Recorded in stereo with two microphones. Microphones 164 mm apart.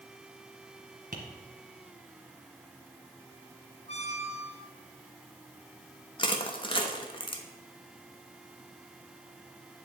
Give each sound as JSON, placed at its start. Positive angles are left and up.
{"t": 1.1, "sound": "tapping", "side_deg": -55, "distance_m": 1.7}
{"t": 3.9, "sound": "a squeak", "side_deg": 40, "distance_m": 0.9}
{"t": 6.2, "sound": "crushing", "side_deg": 30, "distance_m": 1.1}